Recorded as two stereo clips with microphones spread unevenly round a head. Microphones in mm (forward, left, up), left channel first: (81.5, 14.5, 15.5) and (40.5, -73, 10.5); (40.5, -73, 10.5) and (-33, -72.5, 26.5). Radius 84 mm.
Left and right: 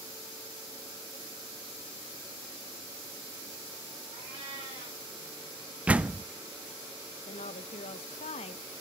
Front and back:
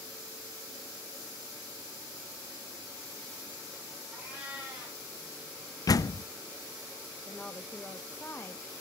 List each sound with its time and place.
4.1 s a cat meowing: 110° right, 5.5 m
5.9 s a door slam: 35° right, 0.5 m
7.3 s a woman speaking: 75° left, 0.8 m